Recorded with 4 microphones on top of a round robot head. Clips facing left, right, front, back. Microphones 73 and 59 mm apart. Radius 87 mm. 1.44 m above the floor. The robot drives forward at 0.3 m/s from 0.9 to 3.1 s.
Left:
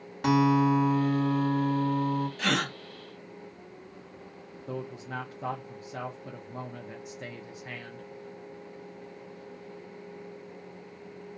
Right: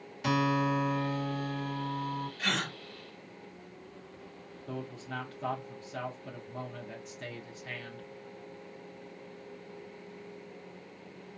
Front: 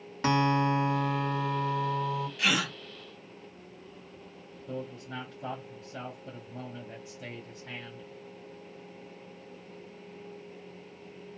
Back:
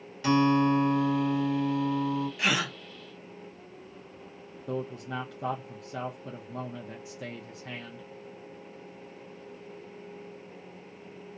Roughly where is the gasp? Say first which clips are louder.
Left 2 dB, front 1 dB; left.